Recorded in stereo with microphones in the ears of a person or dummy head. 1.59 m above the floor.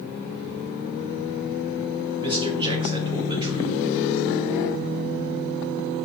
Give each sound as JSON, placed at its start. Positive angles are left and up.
{"t": 2.2, "sound": "a man speaking", "side_deg": -25, "distance_m": 1.6}